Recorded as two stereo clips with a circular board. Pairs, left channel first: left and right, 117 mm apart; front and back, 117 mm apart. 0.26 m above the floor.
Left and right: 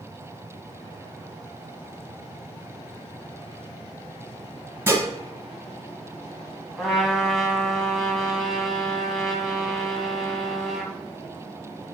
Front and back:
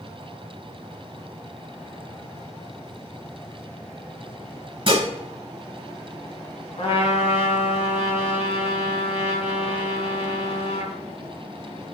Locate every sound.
4.9 s dishes clattering: 155° right, 1.0 m
6.8 s a trumpet: straight ahead, 0.9 m